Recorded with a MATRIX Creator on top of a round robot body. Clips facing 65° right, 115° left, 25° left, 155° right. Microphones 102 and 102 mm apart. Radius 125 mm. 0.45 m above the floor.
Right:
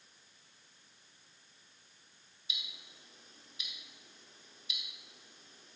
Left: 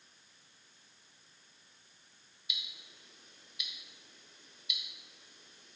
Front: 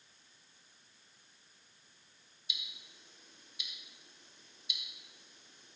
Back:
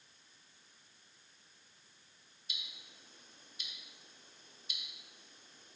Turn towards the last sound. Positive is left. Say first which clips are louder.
# even, front 2 dB
turn(degrees=-120)